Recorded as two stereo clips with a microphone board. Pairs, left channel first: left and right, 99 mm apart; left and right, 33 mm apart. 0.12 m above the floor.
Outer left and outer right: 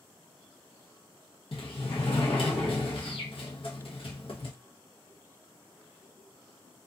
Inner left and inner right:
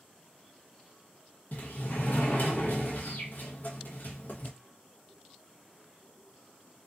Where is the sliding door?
60° left (ahead or behind), 1.0 m.